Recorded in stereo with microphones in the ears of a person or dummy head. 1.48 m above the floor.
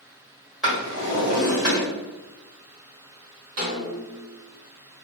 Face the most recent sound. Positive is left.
turn(degrees=-45)  # may be behind; listen again after turning